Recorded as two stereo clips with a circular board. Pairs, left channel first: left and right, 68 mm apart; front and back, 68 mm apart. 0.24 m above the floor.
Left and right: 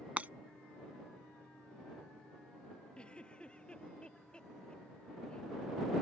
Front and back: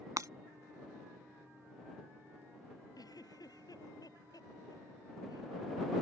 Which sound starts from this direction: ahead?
A giggle, at 3.0 s.